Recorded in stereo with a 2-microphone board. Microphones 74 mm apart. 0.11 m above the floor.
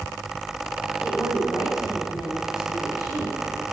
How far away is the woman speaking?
About 4 m.